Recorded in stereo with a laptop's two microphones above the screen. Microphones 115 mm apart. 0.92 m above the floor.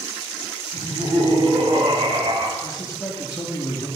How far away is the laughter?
About 3.5 m.